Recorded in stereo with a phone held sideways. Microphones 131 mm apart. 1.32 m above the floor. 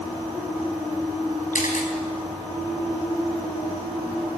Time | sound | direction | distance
1.5 | a camera shutter | 80° left | 4 m